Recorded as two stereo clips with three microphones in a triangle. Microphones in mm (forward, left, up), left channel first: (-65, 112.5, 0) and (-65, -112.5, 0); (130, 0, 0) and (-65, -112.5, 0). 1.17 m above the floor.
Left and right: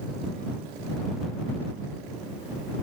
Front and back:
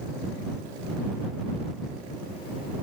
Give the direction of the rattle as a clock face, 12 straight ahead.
I don't hear a rattle.